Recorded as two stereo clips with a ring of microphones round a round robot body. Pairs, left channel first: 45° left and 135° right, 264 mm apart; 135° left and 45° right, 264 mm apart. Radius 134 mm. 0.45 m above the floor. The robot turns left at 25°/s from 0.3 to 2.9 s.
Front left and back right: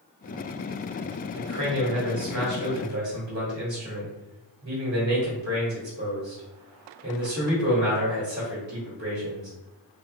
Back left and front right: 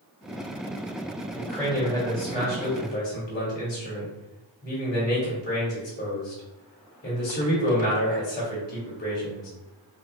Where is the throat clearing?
No throat clearing in this recording.